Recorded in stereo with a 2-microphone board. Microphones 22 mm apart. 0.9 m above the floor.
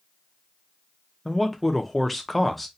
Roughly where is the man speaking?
Centre.